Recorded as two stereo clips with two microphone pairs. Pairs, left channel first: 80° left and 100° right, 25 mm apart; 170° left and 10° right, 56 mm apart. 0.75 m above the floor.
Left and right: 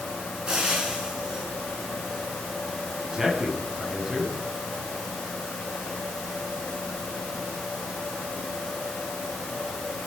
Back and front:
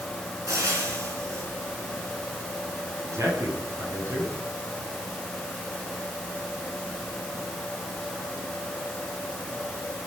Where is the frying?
40° right, 5.5 m.